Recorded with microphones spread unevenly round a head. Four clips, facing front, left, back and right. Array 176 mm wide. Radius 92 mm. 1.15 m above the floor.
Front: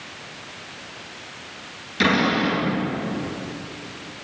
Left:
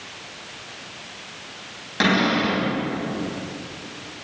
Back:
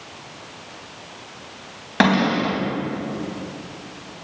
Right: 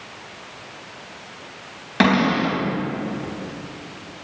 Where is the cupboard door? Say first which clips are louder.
Right 2 dB, back 2 dB; 155° right, 4 m.